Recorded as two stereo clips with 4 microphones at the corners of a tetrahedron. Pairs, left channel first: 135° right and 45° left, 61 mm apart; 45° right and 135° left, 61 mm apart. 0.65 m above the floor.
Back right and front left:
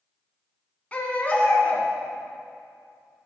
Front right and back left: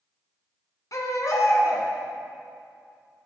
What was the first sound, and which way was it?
A baby crying, 65° right.